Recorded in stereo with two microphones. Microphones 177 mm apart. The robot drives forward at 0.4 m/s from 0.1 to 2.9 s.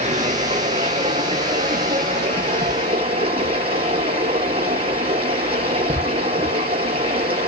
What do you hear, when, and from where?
0.0 s running water: 40° right (ahead or behind), 5.5 m; by 7.5 s 35° right (ahead or behind), 6.5 m